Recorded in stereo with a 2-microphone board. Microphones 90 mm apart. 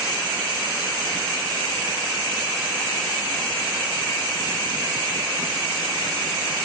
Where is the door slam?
No door slam in this recording.